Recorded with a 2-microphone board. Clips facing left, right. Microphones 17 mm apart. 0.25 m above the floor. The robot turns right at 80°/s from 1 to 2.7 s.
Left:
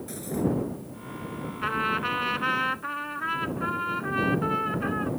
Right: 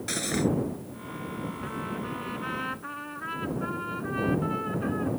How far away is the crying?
No crying in this recording.